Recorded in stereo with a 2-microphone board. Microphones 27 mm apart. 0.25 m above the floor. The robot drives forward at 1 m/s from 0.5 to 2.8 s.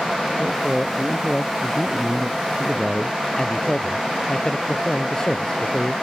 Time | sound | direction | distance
0.4 | a man speaking | centre (ahead or behind) | ?
3.4 | a man speaking | 25° left (ahead or behind) | ?